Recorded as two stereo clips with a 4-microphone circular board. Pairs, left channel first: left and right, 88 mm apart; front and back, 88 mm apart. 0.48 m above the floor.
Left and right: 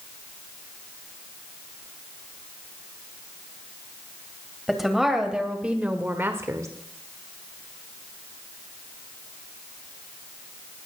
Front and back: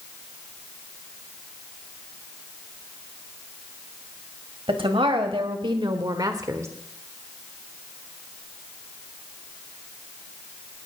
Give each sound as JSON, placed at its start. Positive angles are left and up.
{"t": 4.7, "sound": "a woman speaking", "azimuth_deg": 180, "distance_m": 2.5}